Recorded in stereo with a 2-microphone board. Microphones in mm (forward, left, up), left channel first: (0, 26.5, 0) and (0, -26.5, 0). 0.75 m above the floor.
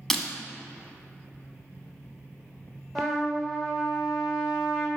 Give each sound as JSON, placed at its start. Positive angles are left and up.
{"t": 0.1, "sound": "breaking glass", "side_deg": 10, "distance_m": 1.3}
{"t": 3.0, "sound": "a trumpet", "side_deg": 0, "distance_m": 3.0}